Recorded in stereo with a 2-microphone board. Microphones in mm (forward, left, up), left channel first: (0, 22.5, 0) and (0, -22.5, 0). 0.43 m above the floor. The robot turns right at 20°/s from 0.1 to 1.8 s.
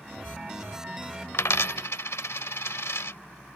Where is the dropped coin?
70° left (ahead or behind); by 3.2 s 75° left (ahead or behind).